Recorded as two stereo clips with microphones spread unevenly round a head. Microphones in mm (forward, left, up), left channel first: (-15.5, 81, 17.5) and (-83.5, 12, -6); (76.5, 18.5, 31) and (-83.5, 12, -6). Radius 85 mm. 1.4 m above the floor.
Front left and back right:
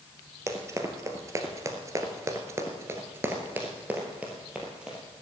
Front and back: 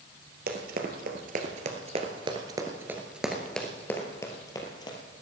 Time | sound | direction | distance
0.5 | running footsteps | 165° left | 2.0 m